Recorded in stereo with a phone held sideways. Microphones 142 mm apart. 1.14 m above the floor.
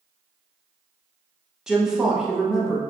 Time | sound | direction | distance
1.7 | a woman speaking | 5° right (ahead or behind) | 0.7 m